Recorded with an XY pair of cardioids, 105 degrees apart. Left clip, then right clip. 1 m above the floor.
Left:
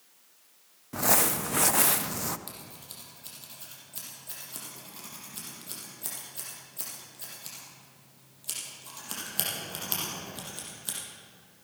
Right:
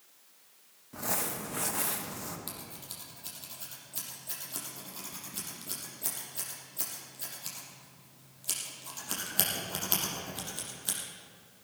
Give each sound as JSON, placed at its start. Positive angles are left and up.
{"t": 0.9, "sound": "crumpling", "azimuth_deg": 60, "distance_m": 0.5}
{"t": 2.5, "sound": "scissors", "azimuth_deg": -10, "distance_m": 6.0}